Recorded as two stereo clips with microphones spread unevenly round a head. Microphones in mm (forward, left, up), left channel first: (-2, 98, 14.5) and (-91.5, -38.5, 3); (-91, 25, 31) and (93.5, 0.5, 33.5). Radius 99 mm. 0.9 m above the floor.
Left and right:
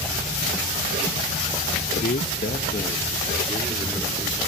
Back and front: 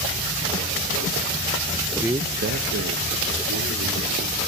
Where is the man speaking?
90° left, 0.6 m; by 4.4 s 20° right, 2.5 m.